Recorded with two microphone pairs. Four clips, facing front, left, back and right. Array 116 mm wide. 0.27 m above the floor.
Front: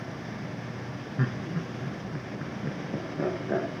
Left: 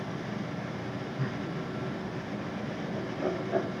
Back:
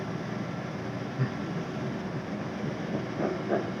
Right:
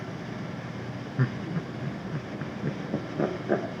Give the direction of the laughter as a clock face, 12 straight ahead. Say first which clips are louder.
Right 7 dB, front 3 dB; 2 o'clock.